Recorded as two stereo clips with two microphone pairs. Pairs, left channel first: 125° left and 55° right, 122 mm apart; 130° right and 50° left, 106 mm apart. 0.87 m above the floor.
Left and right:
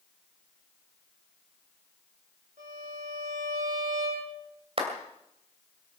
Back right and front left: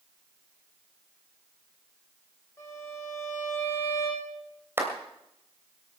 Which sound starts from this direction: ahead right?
A violin, at 2.6 s.